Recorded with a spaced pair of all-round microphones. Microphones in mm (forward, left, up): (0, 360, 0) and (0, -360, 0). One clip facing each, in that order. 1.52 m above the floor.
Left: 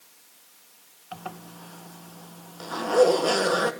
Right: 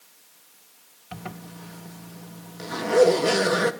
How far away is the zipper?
About 1.5 m.